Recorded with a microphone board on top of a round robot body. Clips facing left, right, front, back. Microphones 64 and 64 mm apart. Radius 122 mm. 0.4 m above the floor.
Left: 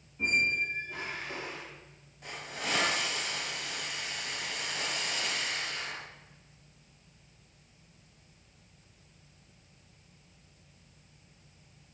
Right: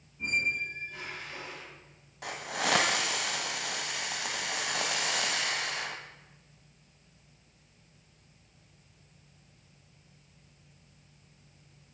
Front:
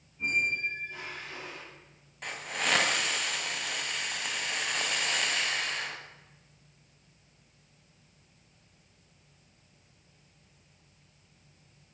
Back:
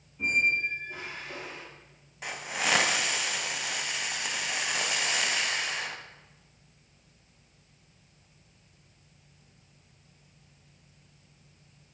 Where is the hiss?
95° right, 1.6 m.